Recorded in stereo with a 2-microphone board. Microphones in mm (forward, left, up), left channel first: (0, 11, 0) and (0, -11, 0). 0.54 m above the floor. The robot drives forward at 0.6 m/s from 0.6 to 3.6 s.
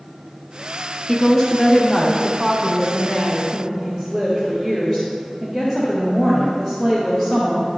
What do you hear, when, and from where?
1.1 s a woman speaking: 20° left (ahead or behind), 0.7 m; by 7.7 s 10° left (ahead or behind), 1.6 m